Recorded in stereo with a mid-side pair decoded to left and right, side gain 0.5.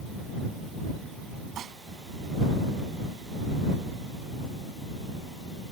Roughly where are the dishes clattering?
Ahead right.